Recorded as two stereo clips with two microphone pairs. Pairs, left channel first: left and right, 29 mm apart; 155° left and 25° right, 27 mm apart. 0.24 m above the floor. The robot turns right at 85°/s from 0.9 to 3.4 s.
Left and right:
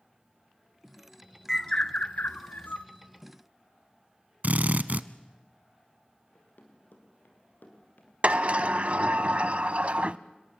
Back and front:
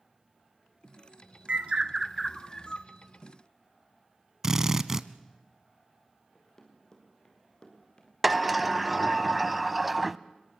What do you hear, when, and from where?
1.5 s a bird: straight ahead, 1.1 m; by 2.9 s 115° left, 1.1 m
4.4 s a drill: 90° right, 0.7 m
6.3 s running footsteps: 85° left, 5.5 m; by 8.1 s 100° left, 5 m
8.2 s a sliding door: 105° right, 0.6 m